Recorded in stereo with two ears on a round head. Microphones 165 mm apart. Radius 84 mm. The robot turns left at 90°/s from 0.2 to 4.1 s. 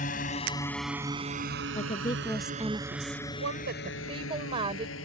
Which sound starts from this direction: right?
A woman speaking, at 3.4 s.